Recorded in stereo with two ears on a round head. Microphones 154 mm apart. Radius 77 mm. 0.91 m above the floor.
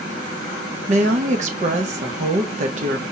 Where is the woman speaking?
45° right (ahead or behind), 1.0 m.